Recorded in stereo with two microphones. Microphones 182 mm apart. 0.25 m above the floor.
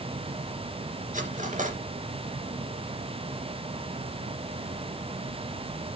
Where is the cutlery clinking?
45° right (ahead or behind), 2 m.